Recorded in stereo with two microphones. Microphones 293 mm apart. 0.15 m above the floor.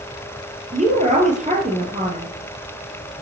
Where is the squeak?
No squeak in this recording.